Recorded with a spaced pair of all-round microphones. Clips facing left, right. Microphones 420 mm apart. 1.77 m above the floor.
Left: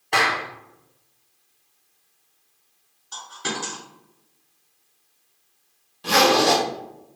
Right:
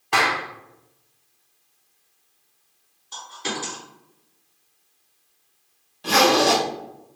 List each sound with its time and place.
0.1 s a clap: 20° right (ahead or behind), 0.6 m
3.1 s a dropped coin: 25° left (ahead or behind), 1.8 m
6.0 s a zipper: 15° left (ahead or behind), 1.3 m